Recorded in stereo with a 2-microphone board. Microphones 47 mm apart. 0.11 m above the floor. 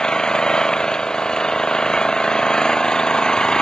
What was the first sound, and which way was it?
An engine running, 15° left (ahead or behind).